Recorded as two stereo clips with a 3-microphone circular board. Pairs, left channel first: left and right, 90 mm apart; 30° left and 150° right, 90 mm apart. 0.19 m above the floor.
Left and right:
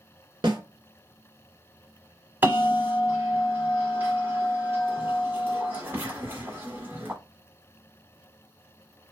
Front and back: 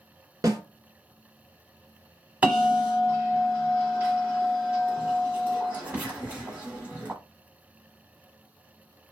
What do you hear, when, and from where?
0.4 s a snare drum: 105° right, 0.9 m
2.4 s a bell: 100° right, 1.3 m